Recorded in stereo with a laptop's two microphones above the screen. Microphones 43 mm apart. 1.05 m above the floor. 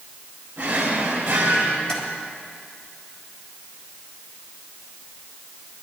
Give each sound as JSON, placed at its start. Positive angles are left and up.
{"t": 0.6, "sound": "a drawer", "side_deg": -30, "distance_m": 2.5}
{"t": 1.9, "sound": "tapping", "side_deg": 15, "distance_m": 1.8}